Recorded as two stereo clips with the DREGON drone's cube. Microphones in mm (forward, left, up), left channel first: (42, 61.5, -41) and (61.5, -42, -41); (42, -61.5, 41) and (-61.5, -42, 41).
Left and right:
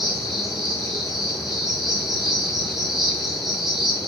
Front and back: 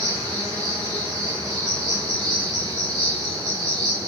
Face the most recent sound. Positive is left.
turn(degrees=-165)